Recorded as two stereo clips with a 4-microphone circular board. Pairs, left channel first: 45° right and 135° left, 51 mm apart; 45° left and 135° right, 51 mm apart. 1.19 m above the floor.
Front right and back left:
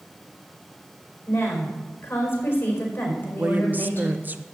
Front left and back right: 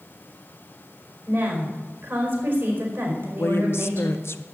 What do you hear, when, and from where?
1.3 s a woman speaking: 95° right, 4.5 m
3.4 s a woman speaking: 80° left, 0.8 m